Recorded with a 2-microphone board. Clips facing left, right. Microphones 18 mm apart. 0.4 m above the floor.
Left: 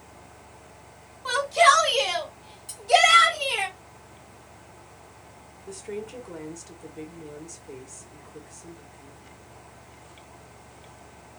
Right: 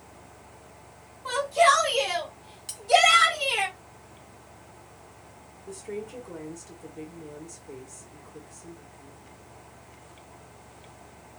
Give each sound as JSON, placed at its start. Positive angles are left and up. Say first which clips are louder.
{"t": 1.2, "sound": "a shout", "louder": "left 2 dB", "side_deg": 45, "distance_m": 2.0}
{"t": 2.7, "sound": "cutlery clinking", "louder": "right 2 dB", "side_deg": -45, "distance_m": 1.0}
{"t": 5.7, "sound": "a woman speaking", "louder": "left 1 dB", "side_deg": 30, "distance_m": 1.2}